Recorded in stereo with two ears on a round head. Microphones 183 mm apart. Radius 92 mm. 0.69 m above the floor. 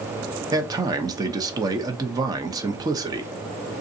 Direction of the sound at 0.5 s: 20° right (ahead or behind).